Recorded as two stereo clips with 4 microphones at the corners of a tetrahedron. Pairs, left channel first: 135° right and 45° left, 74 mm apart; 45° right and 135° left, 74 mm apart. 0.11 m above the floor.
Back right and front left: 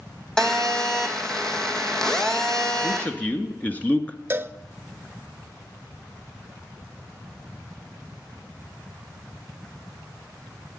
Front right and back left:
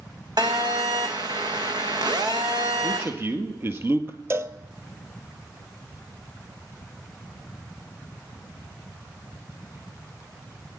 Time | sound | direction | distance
0.4 | a phone buzzing | 145° left | 1.6 m
2.8 | a man speaking | 170° left | 1.4 m
4.3 | a cowbell | 95° left | 0.6 m